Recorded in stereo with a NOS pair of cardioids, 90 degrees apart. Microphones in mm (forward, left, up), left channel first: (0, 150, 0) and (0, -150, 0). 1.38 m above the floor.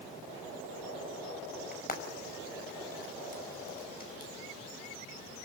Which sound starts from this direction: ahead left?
Frying, at 1.7 s.